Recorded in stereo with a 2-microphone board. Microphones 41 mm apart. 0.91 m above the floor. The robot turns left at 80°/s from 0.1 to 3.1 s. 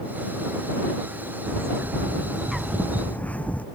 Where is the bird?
85° right; by 3.6 s 140° left.